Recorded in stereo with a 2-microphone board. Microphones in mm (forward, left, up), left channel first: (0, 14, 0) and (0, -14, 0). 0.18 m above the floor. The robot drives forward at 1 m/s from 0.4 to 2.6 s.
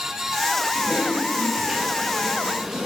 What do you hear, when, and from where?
0.8 s typing on a keyboard: 40° right (ahead or behind), 1.2 m; by 2.9 s 15° right (ahead or behind), 3 m